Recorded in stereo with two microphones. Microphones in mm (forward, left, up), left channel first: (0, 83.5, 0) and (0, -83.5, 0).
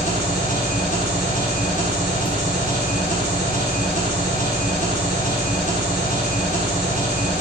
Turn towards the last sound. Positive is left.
turn(degrees=60)  # may be behind; listen again after turning